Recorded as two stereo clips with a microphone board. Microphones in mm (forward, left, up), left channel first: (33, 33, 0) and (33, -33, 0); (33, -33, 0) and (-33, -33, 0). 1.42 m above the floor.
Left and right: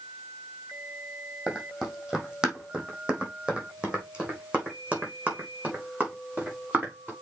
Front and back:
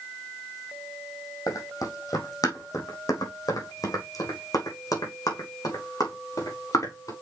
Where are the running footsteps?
5° right, 3 m; by 7.1 s 25° right, 5.5 m.